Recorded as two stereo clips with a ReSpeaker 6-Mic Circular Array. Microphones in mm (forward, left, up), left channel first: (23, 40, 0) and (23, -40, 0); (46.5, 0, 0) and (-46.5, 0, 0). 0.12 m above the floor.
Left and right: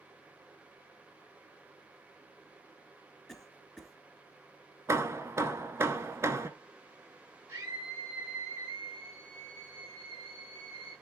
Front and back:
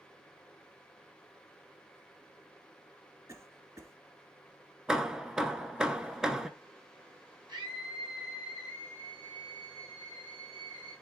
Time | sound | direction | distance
3.3 | a cough | straight behind | 1.3 m
4.9 | hammering | 100° right | 0.7 m
7.5 | a scream | 140° right | 4 m